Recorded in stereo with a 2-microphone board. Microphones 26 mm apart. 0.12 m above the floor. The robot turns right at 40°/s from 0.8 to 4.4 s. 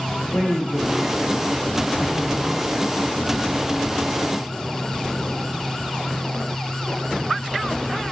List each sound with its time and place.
0.3 s a woman speaking: 60° left, 9 m; by 2.7 s 140° left, 9 m